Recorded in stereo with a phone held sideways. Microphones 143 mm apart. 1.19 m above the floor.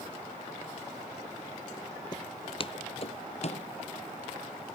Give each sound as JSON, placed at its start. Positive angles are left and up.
{"t": 2.1, "sound": "footsteps", "side_deg": 30}